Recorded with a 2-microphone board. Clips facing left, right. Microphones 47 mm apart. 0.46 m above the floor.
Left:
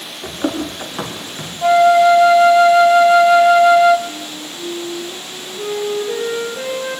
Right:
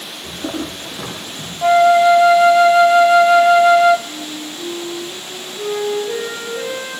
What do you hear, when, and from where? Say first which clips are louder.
0.2 s running footsteps: left 4 dB; 55° left (ahead or behind), 9.5 m
1.6 s a flute: even; centre (ahead or behind), 0.5 m
4.1 s a flute: right 1 dB; 10° left (ahead or behind), 5 m